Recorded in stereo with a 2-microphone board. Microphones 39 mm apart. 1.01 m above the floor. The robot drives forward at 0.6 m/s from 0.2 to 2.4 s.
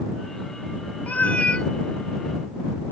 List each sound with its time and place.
1.1 s a cat meowing: 45° left (ahead or behind); by 1.7 s 30° left (ahead or behind)